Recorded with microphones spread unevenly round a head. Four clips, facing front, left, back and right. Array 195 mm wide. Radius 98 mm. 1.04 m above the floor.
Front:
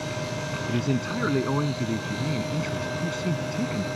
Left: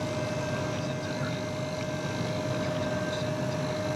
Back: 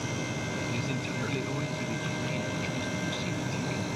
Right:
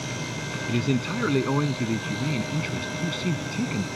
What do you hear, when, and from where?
0.7 s a man speaking: 60° right